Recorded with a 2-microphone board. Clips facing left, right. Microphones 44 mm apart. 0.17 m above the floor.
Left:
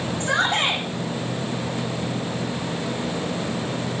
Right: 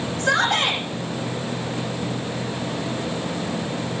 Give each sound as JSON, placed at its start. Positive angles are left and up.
{"t": 0.2, "sound": "a shout", "side_deg": -70, "distance_m": 8.5}